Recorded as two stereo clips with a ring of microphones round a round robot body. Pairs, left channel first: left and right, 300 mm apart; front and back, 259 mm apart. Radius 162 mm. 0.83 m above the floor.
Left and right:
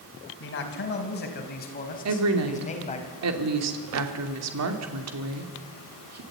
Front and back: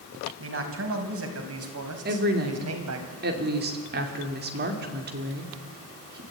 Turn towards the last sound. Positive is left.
turn(degrees=-125)